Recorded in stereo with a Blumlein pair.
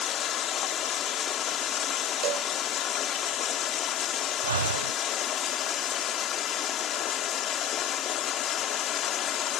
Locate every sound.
0.0 s running water: 30° left
2.2 s a cowbell: 35° right
4.4 s breathing: 70° right